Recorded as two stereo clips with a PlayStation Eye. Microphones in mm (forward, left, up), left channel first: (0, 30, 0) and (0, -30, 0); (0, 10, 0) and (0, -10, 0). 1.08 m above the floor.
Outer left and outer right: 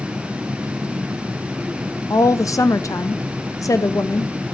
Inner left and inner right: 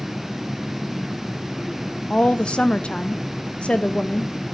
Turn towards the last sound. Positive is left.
turn(degrees=65)  # may be behind; listen again after turning